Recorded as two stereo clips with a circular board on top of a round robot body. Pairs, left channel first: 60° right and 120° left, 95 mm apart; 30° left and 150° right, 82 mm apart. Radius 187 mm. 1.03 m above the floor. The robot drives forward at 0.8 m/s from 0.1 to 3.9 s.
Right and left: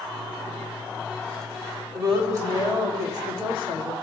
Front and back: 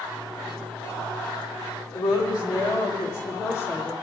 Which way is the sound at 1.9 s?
60° left.